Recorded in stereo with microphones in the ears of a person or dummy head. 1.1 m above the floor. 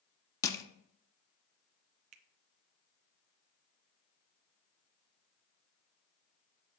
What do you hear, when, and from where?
0.4 s crushing: 20° left (ahead or behind), 0.7 m
2.1 s a finger snap: 35° right (ahead or behind), 0.5 m